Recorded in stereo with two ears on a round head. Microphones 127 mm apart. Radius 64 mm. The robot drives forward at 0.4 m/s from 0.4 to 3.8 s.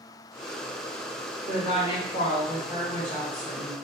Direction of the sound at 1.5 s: 45° left (ahead or behind).